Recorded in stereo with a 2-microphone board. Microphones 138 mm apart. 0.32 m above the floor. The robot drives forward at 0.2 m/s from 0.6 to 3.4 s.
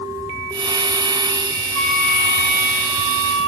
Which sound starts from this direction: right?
A flute, at 1.7 s.